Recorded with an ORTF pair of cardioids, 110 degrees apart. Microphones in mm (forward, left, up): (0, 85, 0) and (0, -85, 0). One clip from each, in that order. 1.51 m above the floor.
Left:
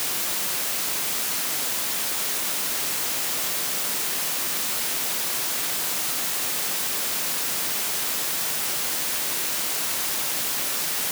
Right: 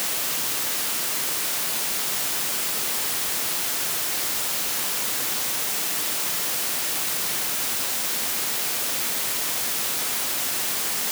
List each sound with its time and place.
Only background noise.